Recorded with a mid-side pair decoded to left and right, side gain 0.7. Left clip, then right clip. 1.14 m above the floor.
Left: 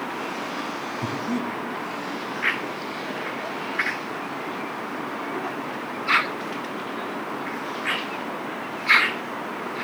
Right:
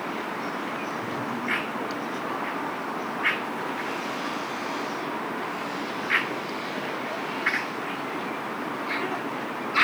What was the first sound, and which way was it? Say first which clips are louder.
Breathing: left 2 dB; 45° left.